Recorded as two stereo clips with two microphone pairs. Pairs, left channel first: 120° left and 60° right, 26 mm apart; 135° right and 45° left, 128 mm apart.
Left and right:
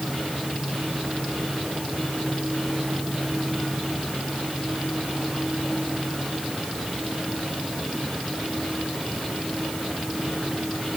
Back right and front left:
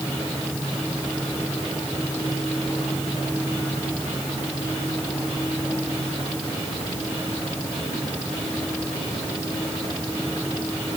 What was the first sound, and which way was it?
Only background noise.